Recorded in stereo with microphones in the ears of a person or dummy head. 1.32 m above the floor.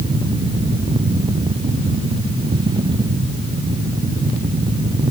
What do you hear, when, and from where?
Only background noise.